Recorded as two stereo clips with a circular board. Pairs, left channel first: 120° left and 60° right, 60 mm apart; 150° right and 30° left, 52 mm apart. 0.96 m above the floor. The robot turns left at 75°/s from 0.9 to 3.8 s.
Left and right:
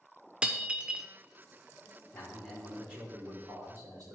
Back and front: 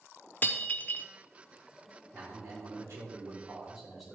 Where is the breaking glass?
125° right, 0.7 m; by 1.1 s 135° right, 0.7 m.